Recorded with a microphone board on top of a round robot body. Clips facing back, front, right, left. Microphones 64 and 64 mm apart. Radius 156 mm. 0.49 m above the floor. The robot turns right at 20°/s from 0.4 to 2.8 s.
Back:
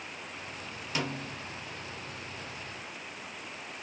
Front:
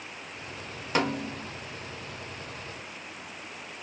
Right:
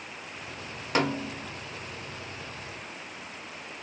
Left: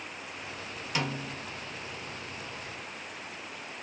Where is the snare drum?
45° right, 0.7 m; by 1.5 s 35° right, 0.7 m.